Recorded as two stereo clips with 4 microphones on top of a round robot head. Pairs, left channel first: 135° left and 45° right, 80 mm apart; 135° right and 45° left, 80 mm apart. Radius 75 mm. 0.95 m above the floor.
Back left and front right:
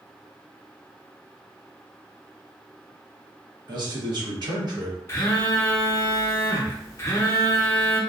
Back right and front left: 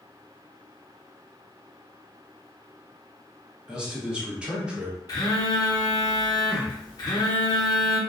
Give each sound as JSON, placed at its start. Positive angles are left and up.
{"t": 3.7, "sound": "a man speaking", "azimuth_deg": -30, "distance_m": 1.0}
{"t": 5.1, "sound": "a phone buzzing", "azimuth_deg": -170, "distance_m": 0.7}